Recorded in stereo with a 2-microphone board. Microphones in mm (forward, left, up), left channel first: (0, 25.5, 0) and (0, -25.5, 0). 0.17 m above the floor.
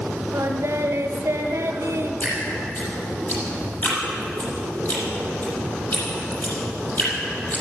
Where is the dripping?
35° left (ahead or behind), 6.5 m.